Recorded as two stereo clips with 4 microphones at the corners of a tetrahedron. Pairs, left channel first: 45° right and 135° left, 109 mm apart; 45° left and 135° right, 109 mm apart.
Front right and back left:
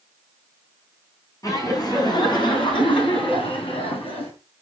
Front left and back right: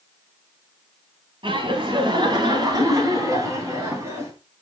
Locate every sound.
1.4 s laughter: 100° right, 3.5 m; by 4.3 s 70° right, 4.5 m